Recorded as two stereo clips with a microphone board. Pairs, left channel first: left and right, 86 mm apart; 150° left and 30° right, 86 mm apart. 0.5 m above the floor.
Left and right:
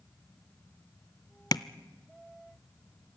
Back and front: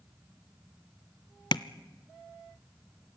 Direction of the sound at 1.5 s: 125° left.